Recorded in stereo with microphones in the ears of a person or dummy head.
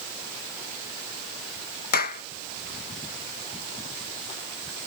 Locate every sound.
1.9 s a clap: 50° left (ahead or behind)